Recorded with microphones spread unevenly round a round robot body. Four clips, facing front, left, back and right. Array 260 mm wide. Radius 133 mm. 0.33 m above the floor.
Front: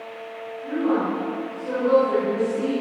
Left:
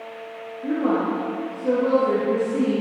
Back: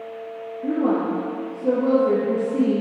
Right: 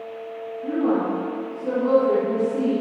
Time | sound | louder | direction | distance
0.6 | a woman speaking | even, back 1 dB | 160° left | 7.5 m